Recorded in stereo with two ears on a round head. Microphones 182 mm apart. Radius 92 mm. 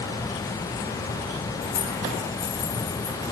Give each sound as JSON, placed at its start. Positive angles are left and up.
{"t": 1.6, "sound": "keys jangling", "side_deg": 75, "distance_m": 2.5}